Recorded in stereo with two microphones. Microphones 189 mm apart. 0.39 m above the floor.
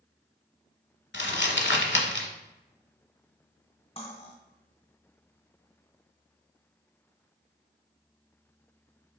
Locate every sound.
1.1 s crumpling: 80° left, 0.7 m
4.0 s cutlery clinking: 35° left (ahead or behind), 0.9 m